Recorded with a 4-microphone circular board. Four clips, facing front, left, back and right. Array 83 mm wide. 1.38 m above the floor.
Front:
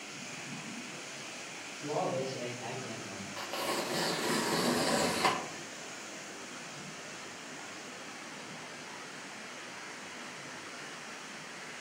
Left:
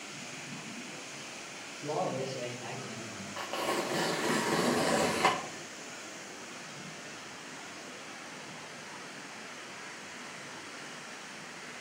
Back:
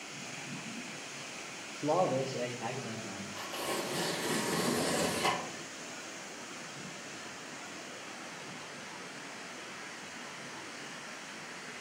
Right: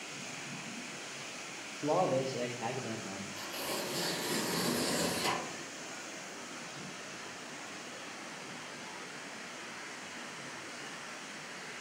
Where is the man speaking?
150° right, 1.1 m; by 3.3 s 90° right, 1.2 m.